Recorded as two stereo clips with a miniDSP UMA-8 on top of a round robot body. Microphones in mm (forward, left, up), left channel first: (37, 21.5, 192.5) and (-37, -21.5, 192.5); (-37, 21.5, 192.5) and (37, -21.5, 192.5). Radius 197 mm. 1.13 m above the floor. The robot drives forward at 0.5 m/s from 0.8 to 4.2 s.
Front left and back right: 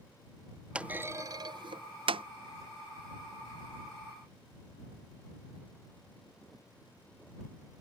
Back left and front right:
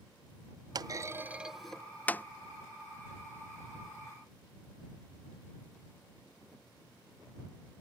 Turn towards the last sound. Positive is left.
turn(degrees=-165)